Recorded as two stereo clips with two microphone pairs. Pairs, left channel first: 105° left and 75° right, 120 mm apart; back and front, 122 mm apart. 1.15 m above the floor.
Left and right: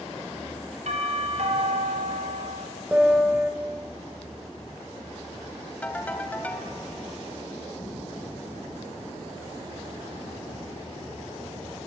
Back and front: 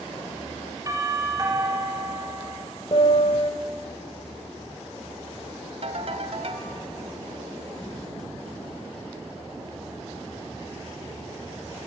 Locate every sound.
0.9 s a doorbell: 60° right, 4.5 m
2.9 s a piano: 150° right, 2.5 m
5.8 s a ringtone: 30° left, 2.5 m